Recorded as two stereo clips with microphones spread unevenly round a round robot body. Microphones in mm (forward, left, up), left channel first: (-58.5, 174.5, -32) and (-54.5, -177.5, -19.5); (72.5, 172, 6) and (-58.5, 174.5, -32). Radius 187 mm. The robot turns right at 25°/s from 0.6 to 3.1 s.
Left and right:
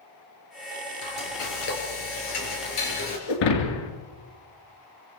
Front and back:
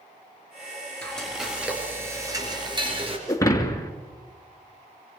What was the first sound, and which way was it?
Frying, 80° left.